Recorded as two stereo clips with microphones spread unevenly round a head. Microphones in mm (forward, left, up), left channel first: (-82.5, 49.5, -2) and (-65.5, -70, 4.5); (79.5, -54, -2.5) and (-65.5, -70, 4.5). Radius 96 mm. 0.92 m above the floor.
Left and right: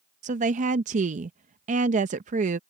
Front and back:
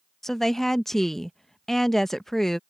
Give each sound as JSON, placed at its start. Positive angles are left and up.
{"t": 0.2, "sound": "a woman speaking", "azimuth_deg": -80}